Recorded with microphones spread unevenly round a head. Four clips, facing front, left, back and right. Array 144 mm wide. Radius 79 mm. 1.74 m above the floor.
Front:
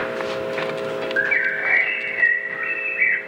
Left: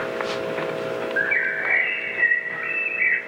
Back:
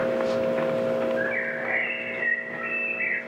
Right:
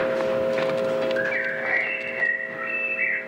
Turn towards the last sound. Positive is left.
turn(degrees=25)